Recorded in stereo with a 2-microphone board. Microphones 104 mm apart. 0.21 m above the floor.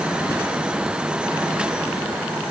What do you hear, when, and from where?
Only background noise.